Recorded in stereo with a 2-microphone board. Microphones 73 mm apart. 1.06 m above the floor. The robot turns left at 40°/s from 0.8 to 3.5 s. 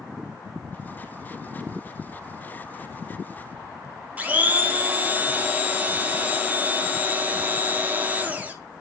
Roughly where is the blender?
Right.